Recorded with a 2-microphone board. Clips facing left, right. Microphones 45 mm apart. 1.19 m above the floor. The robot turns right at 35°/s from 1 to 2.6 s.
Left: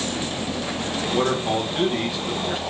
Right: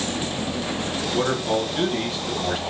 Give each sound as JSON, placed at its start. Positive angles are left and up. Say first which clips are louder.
{"t": 1.1, "sound": "a man speaking", "louder": "left 1 dB", "azimuth_deg": 130, "distance_m": 1.2}